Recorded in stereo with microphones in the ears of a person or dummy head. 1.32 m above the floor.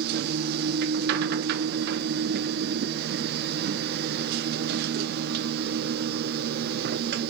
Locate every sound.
0.0 s a machine running: 50° right (ahead or behind), 0.7 m